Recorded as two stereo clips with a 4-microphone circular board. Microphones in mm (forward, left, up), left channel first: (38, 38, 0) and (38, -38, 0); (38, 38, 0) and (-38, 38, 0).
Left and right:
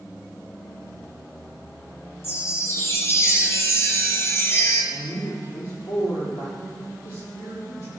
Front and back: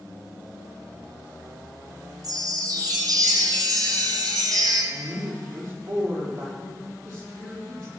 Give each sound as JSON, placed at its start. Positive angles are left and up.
{"t": 2.2, "sound": "a chime", "azimuth_deg": 145, "distance_m": 2.0}
{"t": 4.9, "sound": "a man speaking", "azimuth_deg": 125, "distance_m": 4.5}